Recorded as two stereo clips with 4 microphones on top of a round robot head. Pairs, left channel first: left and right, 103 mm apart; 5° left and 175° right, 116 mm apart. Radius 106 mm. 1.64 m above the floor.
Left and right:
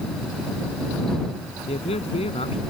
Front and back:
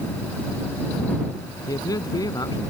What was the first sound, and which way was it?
A man speaking, 65° left.